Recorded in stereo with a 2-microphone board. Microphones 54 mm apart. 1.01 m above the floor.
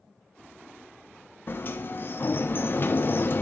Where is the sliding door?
45° left (ahead or behind), 0.5 m.